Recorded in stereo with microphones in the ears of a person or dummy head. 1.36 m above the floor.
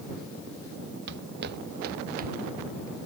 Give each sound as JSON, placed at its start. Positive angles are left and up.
{"t": 1.1, "sound": "footsteps", "side_deg": -70}